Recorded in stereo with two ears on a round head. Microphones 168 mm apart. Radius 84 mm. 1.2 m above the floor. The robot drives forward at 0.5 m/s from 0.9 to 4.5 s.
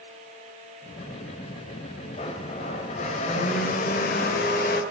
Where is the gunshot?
No gunshot in this recording.